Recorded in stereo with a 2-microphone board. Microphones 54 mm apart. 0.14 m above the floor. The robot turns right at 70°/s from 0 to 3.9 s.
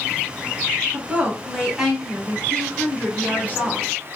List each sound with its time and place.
0.9 s a woman speaking: 30° right (ahead or behind), 1.1 m; by 3.9 s 25° left (ahead or behind), 1.1 m